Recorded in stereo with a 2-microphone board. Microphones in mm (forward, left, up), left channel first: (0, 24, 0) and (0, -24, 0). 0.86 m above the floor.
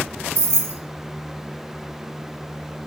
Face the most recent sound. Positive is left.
turn(degrees=-85)